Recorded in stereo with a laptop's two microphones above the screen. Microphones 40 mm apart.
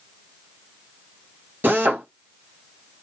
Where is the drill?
65° right (ahead or behind), 1.0 m.